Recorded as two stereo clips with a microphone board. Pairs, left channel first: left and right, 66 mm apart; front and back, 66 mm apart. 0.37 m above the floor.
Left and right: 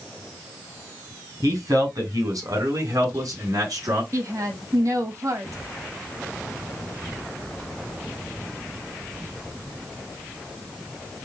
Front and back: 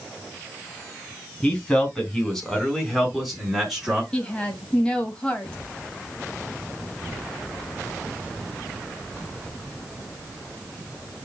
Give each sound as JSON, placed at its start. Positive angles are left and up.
{"t": 1.4, "sound": "a man speaking", "azimuth_deg": -80, "distance_m": 3.5}
{"t": 4.1, "sound": "a woman speaking", "azimuth_deg": -75, "distance_m": 2.0}